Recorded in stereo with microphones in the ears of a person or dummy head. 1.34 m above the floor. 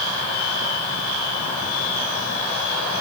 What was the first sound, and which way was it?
Only background noise.